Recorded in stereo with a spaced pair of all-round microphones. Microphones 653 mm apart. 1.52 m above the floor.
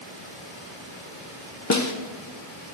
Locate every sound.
1.7 s a snare drum: 25° left (ahead or behind), 0.9 m